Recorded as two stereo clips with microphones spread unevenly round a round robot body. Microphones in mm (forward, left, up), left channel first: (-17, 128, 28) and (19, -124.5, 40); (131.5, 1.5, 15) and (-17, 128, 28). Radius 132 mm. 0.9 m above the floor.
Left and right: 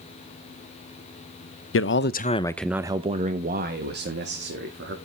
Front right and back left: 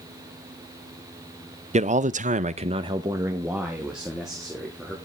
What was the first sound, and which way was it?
A man speaking, 90° left.